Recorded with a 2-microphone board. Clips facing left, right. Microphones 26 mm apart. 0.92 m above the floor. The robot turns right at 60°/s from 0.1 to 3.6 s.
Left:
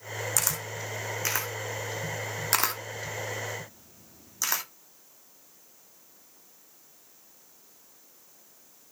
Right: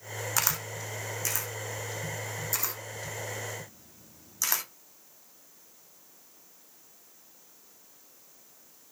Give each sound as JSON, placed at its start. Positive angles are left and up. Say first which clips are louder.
{"t": 0.4, "sound": "a camera shutter", "louder": "right 4 dB", "side_deg": -25, "distance_m": 1.1}